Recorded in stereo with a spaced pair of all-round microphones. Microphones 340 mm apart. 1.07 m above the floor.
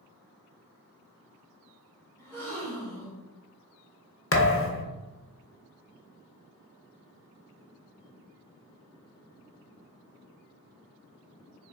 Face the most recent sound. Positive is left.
turn(degrees=40)  # may be behind; listen again after turning